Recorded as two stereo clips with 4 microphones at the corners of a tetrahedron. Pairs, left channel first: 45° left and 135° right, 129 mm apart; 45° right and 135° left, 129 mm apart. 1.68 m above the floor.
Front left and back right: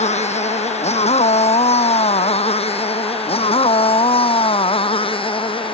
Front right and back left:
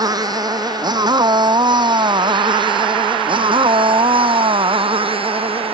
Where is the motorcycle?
75° left; by 5.8 s 90° left.